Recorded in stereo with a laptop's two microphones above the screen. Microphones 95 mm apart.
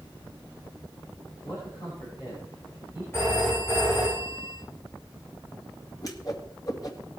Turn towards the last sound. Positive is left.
turn(degrees=40)  # may be behind; listen again after turning